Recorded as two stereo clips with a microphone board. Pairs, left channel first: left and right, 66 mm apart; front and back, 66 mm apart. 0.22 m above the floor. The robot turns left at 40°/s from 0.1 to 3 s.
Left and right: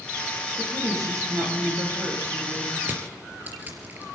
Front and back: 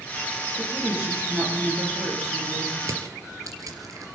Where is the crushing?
145° right, 3.5 m; by 4.0 s 155° right, 3.5 m.